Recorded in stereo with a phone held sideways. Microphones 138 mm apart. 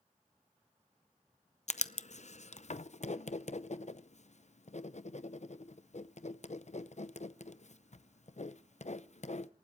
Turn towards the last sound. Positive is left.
turn(degrees=55)  # may be behind; listen again after turning